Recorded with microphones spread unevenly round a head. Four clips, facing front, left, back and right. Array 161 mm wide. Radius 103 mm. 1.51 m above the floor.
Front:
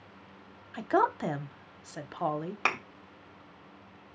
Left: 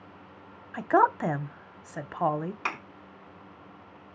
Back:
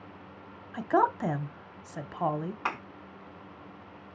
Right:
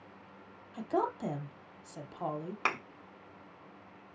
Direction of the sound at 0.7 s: 80° left.